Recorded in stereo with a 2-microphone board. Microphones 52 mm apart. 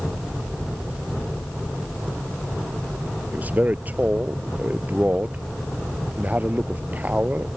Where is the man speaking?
30° right (ahead or behind).